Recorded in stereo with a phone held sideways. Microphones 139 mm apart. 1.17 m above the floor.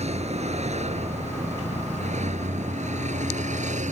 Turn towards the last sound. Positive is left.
turn(degrees=-60)  # may be behind; listen again after turning